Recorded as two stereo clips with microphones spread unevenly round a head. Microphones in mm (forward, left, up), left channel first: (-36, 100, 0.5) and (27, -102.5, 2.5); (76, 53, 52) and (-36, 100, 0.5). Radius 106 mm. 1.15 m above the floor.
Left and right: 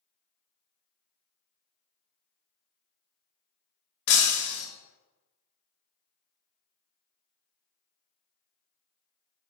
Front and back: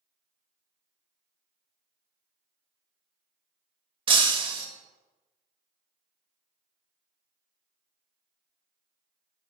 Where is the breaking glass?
100° left, 1.2 m.